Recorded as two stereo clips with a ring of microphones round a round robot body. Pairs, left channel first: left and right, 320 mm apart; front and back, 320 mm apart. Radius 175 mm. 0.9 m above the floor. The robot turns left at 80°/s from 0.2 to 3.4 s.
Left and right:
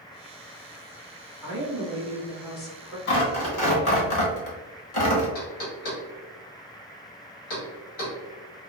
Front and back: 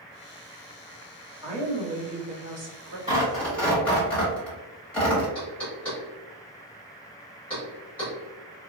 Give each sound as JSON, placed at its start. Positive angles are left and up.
{"t": 1.4, "sound": "a woman speaking", "azimuth_deg": -105, "distance_m": 1.8}
{"t": 3.1, "sound": "tearing paper", "azimuth_deg": 110, "distance_m": 1.3}
{"t": 5.3, "sound": "knocking", "azimuth_deg": 85, "distance_m": 1.7}